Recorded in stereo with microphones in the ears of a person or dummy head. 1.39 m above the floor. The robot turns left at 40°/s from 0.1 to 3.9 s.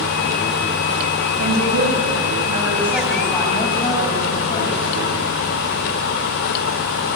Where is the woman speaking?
110° right, 7.5 m; by 4.8 s 150° left, 7.5 m.